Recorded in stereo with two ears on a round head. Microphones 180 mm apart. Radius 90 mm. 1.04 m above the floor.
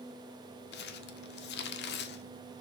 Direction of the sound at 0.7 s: 55° left (ahead or behind).